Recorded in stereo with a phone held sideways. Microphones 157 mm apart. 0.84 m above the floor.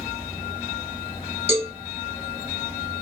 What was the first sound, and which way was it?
A cowbell, 40° right (ahead or behind).